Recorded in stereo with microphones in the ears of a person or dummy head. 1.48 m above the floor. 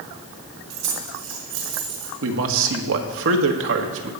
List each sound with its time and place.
0.7 s keys jangling: 60° right (ahead or behind), 3 m; by 2.1 s 80° right, 4 m
2.2 s a man speaking: 75° right (ahead or behind), 1.7 m